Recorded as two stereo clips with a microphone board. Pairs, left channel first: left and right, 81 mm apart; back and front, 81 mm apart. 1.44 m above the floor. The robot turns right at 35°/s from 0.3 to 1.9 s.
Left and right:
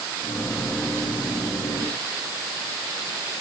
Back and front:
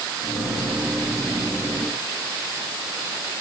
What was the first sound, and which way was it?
Only background noise.